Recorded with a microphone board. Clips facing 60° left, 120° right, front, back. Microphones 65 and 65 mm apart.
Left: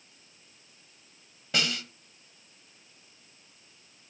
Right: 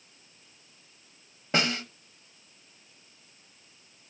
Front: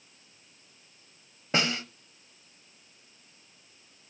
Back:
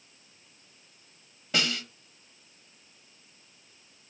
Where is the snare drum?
65° right, 0.7 m.